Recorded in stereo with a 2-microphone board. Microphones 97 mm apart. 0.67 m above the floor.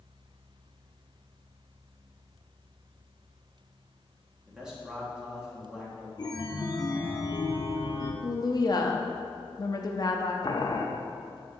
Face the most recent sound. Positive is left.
turn(degrees=45)  # may be behind; listen again after turning